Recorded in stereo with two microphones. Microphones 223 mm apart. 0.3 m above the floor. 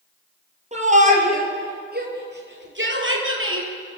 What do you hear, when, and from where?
0.7 s a shout: 30° right (ahead or behind), 6.5 m; by 3.7 s 60° right (ahead or behind), 7.5 m